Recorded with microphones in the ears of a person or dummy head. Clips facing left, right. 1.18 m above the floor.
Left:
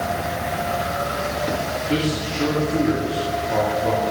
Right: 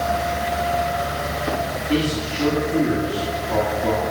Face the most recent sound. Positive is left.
turn(degrees=-20)  # may be behind; listen again after turning